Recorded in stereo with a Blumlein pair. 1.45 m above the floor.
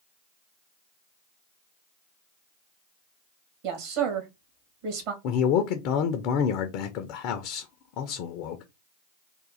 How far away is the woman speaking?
About 1.8 m.